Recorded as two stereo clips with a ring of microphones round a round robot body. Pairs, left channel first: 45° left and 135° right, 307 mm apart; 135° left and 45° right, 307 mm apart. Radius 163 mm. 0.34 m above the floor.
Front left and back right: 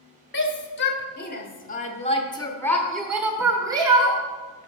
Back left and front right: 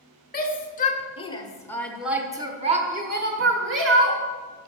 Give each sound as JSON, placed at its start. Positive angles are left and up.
{"t": 0.3, "sound": "a shout", "azimuth_deg": 85, "distance_m": 1.5}